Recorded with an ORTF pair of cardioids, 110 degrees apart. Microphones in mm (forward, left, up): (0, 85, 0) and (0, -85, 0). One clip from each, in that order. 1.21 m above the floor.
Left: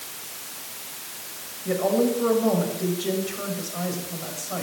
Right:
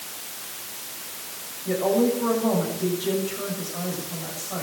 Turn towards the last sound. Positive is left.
turn(degrees=25)